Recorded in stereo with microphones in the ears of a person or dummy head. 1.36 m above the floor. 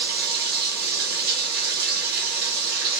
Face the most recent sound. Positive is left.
turn(degrees=-50)  # may be behind; listen again after turning